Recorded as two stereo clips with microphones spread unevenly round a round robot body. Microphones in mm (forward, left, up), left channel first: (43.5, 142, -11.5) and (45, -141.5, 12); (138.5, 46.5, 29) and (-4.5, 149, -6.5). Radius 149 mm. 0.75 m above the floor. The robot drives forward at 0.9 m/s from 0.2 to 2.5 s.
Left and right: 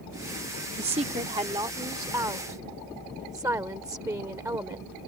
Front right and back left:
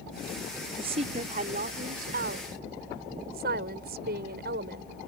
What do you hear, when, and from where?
0.8 s a woman speaking: 160° right; by 4.9 s 170° right